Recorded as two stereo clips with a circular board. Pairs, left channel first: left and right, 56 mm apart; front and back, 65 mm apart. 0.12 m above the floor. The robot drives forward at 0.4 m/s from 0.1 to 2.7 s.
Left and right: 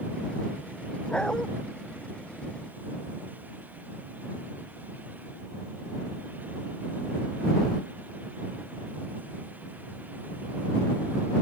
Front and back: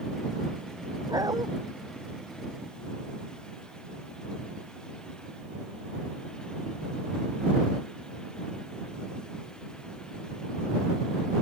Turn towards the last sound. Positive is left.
turn(degrees=165)